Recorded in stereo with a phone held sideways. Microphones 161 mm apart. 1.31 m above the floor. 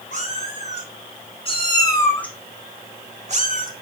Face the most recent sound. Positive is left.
turn(degrees=-60)  # may be behind; listen again after turning